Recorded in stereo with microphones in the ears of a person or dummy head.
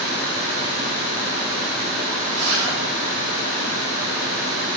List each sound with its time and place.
2.3 s a zipper: 75° right (ahead or behind), 6 m